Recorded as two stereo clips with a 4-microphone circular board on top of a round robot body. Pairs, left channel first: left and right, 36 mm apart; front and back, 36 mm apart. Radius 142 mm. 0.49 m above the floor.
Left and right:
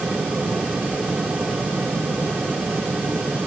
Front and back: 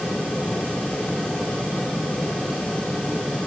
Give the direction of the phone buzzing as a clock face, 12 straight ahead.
I don't hear a phone buzzing.